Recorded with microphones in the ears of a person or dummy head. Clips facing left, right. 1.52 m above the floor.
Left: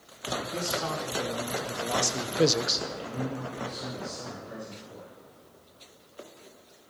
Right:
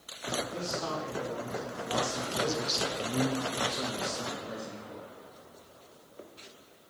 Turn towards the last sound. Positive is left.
turn(degrees=-60)  # may be behind; listen again after turning